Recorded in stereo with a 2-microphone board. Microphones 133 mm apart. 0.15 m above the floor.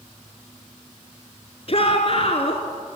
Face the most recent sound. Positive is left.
turn(degrees=45)  # may be behind; listen again after turning